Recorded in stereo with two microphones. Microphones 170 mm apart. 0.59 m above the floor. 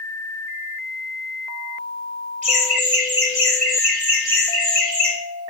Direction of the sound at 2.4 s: 45° right (ahead or behind).